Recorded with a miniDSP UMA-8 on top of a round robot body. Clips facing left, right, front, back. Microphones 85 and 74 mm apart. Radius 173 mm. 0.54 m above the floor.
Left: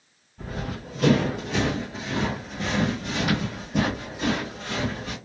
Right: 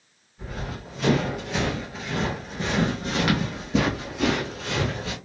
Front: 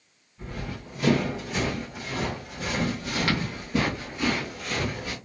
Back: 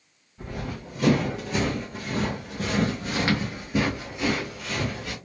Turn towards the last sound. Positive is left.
turn(degrees=-80)